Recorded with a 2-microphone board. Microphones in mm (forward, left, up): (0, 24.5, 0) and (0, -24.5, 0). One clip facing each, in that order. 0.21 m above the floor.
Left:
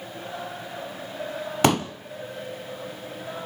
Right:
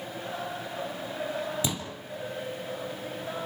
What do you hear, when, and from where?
1.6 s a pop: 65° left (ahead or behind), 1.2 m